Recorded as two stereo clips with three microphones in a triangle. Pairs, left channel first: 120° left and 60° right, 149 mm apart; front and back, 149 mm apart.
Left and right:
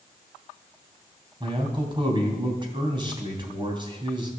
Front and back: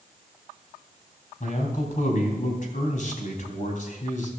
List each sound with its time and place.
1.4 s a man speaking: 10° right, 3 m